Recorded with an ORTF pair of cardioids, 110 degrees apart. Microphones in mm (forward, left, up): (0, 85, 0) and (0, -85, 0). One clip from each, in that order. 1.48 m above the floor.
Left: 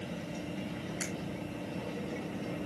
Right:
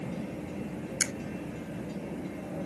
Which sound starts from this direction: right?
A finger snap, at 1.0 s.